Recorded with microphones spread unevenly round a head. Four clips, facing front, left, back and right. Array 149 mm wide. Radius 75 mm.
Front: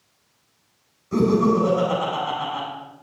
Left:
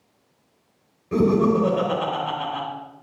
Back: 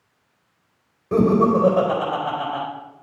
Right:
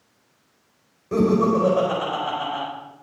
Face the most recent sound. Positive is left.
turn(degrees=-165)